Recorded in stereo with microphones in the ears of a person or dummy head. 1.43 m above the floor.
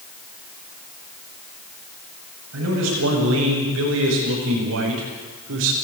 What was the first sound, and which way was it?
A man speaking, 80° right.